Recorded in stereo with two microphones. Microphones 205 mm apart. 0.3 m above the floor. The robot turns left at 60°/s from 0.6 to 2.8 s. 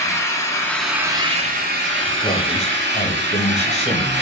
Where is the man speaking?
135° left, 1.0 m; by 4.2 s 100° left, 1.0 m.